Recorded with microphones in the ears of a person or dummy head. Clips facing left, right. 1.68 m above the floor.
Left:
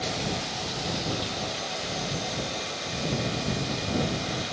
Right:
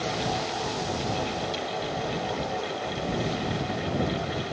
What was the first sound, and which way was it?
Only background noise.